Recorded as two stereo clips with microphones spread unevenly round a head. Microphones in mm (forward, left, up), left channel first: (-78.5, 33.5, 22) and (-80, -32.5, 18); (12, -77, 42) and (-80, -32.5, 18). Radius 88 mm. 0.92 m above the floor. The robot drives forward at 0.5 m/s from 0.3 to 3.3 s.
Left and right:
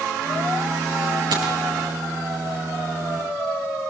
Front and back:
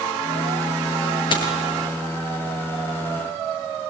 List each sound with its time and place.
1.3 s a dropped coin: 65° right, 5.5 m